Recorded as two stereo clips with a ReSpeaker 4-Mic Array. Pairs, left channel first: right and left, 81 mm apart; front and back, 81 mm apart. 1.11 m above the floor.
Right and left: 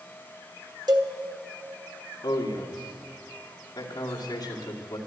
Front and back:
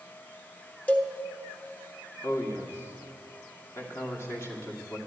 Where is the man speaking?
55° right, 2.5 m.